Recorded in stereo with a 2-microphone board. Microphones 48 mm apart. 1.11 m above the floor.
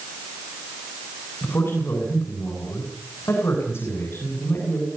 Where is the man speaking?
55° left (ahead or behind), 8.5 m.